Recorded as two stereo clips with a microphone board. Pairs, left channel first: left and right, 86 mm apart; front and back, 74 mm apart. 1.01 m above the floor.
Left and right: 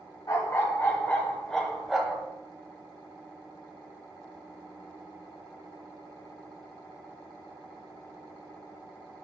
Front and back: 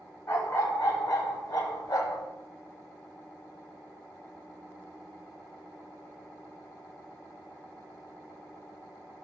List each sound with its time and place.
0.3 s a dog barking: 45° left, 1.4 m; by 2.2 s 10° right, 1.4 m